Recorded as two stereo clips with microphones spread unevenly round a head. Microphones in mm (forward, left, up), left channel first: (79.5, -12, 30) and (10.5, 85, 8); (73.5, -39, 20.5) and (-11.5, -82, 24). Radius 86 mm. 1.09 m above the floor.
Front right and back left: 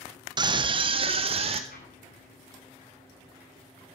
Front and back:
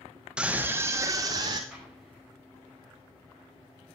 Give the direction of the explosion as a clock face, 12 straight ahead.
2 o'clock.